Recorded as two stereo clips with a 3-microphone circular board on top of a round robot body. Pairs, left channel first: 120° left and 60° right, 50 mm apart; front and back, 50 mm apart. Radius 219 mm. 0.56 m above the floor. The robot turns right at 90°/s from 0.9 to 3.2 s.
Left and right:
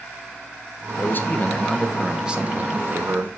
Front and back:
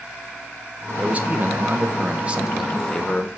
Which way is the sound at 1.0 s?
115° left.